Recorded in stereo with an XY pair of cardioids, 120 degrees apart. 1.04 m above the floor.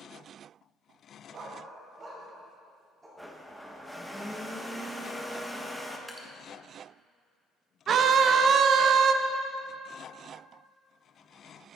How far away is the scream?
About 0.7 m.